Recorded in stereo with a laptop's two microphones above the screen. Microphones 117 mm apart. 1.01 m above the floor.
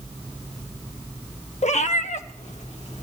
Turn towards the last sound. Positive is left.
turn(degrees=70)  # may be behind; listen again after turning